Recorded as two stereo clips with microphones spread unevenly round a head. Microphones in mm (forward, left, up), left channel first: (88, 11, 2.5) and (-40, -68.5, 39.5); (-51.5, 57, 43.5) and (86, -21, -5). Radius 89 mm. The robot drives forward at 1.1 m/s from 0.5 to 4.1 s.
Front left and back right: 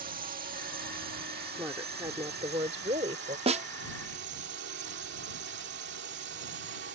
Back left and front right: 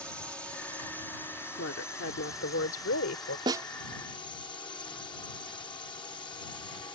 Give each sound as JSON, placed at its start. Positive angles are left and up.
{"t": 0.0, "sound": "a drone", "azimuth_deg": -115}
{"t": 1.6, "sound": "a woman speaking", "azimuth_deg": 135}
{"t": 3.5, "sound": "a snare drum", "azimuth_deg": -105}